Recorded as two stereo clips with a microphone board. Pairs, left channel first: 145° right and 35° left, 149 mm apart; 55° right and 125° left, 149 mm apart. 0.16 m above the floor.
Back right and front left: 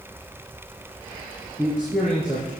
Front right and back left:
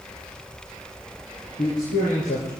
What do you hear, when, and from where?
1.6 s a man speaking: 50° right, 4 m